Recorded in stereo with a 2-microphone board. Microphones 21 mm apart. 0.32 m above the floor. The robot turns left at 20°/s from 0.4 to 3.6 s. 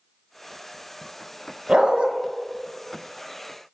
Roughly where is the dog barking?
Right.